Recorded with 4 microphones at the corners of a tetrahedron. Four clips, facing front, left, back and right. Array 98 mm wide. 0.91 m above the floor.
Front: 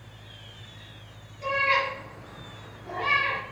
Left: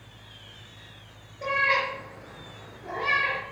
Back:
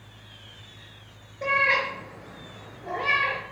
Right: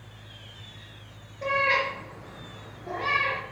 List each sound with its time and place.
1.4 s a cat meowing: 160° left, 5 m; by 3.4 s 150° left, 6.5 m